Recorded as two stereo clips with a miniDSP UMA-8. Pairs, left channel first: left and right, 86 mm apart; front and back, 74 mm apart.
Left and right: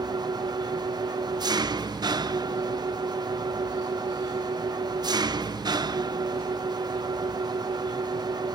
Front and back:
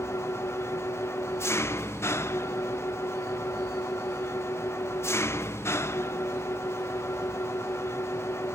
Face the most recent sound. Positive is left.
turn(degrees=-55)